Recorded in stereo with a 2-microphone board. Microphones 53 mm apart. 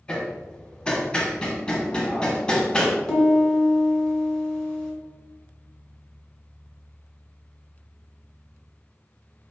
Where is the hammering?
20° left (ahead or behind), 0.8 m.